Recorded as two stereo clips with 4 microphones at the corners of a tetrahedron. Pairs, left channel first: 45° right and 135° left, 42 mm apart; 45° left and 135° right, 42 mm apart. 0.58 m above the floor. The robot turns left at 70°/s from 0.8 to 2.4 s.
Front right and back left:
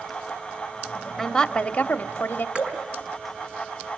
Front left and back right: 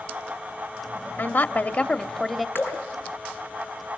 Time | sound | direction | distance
1.2 | a woman speaking | 40° left | 0.9 m
2.5 | dripping | 75° left | 4 m